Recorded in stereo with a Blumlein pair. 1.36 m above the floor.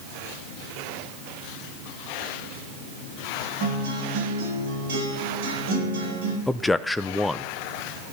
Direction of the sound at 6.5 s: 10° left.